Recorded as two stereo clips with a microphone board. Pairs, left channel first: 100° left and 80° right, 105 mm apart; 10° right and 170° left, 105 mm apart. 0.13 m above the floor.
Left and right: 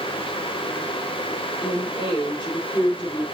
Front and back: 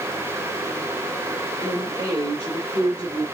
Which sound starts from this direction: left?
A woman speaking, at 1.6 s.